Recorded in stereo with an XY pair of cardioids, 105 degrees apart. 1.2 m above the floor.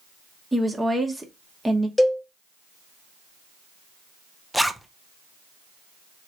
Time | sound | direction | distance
0.5 | a woman speaking | 5° right | 1.3 m
2.0 | a cowbell | 25° left | 1.0 m
4.5 | a zipper | straight ahead | 0.6 m